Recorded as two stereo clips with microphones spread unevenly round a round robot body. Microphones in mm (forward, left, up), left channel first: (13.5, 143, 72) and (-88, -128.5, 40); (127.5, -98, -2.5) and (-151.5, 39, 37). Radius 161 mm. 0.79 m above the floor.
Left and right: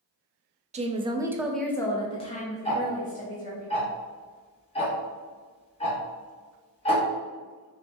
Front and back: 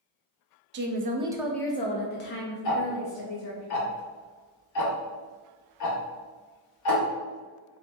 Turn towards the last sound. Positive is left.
turn(degrees=-5)